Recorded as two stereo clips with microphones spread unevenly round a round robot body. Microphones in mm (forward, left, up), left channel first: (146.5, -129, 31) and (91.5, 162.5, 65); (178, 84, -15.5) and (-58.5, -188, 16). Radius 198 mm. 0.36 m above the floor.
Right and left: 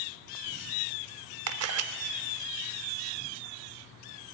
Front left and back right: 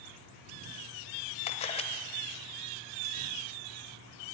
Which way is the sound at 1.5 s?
110° left.